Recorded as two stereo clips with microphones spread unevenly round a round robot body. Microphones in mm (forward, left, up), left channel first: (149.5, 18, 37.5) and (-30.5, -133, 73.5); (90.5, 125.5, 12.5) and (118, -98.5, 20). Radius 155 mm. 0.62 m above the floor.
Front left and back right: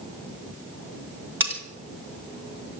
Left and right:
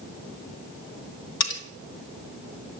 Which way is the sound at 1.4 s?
135° left.